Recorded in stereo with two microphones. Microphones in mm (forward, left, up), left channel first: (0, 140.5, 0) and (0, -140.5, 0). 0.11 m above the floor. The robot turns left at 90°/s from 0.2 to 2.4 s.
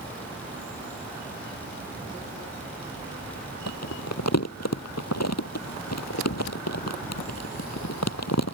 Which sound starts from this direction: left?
Crumpling, at 3.7 s.